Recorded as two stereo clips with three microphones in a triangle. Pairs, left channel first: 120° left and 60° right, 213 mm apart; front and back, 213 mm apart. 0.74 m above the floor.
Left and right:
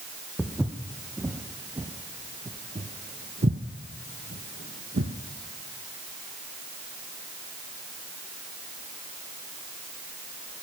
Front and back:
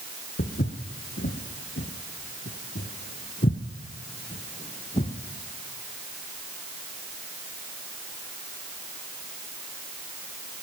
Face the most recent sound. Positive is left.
turn(degrees=-55)